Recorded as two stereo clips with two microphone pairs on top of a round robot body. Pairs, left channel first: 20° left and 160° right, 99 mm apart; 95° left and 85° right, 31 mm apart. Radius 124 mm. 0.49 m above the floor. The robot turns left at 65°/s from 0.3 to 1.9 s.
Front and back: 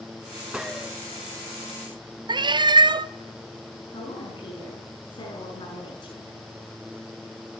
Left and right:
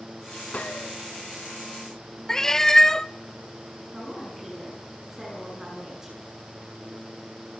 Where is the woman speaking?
10° right, 8 m.